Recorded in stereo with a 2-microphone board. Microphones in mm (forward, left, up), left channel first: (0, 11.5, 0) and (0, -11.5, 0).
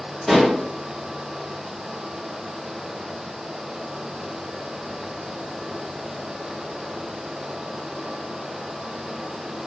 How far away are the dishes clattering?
About 1.7 m.